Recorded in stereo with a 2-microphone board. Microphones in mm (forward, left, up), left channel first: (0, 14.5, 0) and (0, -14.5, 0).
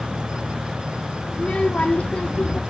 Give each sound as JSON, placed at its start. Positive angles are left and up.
{"t": 1.3, "sound": "a child speaking", "side_deg": 45, "distance_m": 1.2}